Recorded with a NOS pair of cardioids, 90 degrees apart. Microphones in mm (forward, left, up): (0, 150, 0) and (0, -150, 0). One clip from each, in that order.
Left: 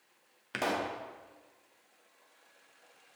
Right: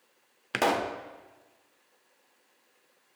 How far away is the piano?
I don't hear a piano.